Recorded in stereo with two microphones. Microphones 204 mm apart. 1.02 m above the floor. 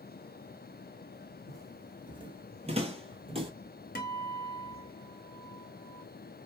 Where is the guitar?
45° left (ahead or behind), 0.7 m.